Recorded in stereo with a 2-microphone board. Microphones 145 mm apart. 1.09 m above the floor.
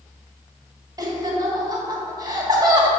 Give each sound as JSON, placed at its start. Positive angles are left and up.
{"t": 1.0, "sound": "laughter", "side_deg": -30, "distance_m": 1.6}